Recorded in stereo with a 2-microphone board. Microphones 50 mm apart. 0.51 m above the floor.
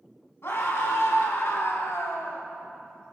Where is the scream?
60° left (ahead or behind), 3.5 m; by 2.5 s 65° left (ahead or behind), 2 m.